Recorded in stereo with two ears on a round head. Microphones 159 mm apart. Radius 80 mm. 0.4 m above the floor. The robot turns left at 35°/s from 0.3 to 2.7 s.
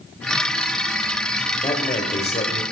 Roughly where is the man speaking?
Behind left.